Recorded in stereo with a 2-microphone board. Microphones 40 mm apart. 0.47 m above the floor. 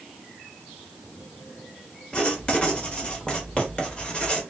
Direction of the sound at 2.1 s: 30° left (ahead or behind).